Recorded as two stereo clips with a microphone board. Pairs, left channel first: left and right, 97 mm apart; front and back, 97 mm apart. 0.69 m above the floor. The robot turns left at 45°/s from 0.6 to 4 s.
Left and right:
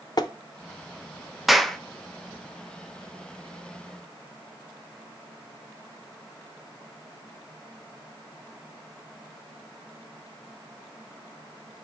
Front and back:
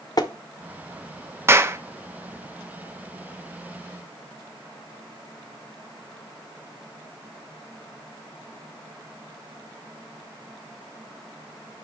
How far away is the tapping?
About 0.6 m.